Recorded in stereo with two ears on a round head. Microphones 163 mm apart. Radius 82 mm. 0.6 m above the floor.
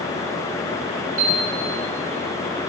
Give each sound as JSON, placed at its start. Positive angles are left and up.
{"t": 1.2, "sound": "a piano", "side_deg": -45, "distance_m": 3.5}